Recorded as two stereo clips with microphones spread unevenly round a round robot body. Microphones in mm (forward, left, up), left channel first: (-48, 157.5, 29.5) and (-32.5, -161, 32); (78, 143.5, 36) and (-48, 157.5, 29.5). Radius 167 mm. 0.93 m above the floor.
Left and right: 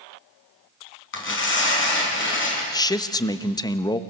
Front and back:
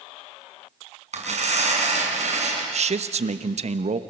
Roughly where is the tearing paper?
Behind left.